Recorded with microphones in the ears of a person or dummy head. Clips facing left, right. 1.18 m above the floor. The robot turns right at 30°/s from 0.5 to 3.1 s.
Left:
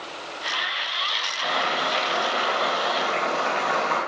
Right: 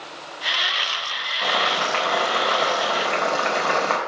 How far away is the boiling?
About 4 m.